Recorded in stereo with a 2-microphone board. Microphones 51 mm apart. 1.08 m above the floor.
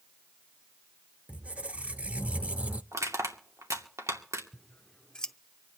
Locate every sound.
1.3 s a squeak: 25° right (ahead or behind), 0.7 m
2.9 s crushing: 85° right, 2.5 m
4.5 s scissors: 15° left (ahead or behind), 0.7 m